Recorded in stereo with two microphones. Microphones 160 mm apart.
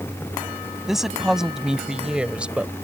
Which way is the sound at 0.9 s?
Centre (ahead or behind).